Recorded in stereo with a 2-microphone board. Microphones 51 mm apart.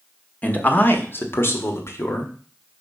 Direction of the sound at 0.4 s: 25° left (ahead or behind).